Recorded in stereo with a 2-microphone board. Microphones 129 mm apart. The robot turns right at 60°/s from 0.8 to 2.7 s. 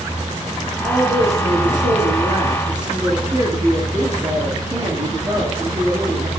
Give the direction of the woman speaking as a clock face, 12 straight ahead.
5 o'clock.